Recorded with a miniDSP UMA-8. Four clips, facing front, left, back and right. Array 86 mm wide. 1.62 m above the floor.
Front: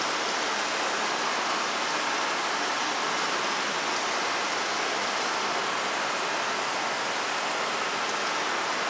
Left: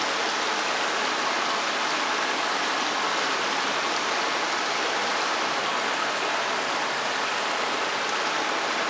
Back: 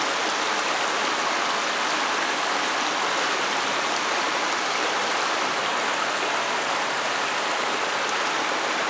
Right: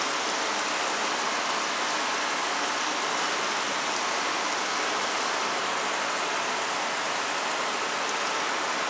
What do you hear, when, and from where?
0.0 s running water: 155° left, 0.7 m